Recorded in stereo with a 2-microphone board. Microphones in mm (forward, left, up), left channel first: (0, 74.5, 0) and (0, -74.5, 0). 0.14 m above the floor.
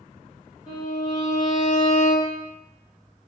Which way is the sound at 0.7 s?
30° left (ahead or behind).